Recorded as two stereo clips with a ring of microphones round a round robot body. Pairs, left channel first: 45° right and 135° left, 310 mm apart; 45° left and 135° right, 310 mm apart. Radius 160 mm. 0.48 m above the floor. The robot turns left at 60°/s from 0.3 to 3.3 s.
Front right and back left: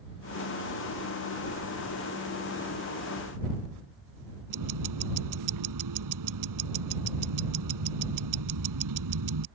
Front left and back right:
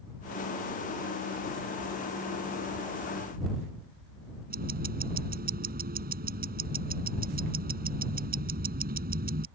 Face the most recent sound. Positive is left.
turn(degrees=160)